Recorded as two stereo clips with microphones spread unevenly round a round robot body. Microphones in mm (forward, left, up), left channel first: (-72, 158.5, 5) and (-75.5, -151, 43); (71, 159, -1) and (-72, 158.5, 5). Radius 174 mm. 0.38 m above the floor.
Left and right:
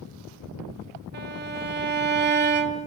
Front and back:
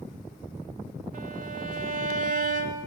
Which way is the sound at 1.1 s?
150° right.